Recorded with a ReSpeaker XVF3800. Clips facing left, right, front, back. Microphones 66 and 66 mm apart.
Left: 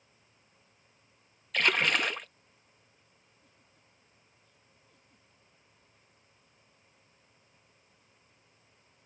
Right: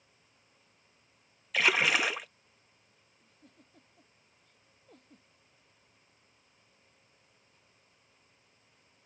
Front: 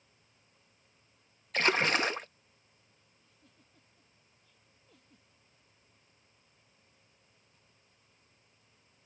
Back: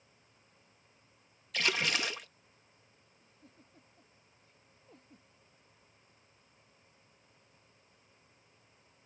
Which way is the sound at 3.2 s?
125° right.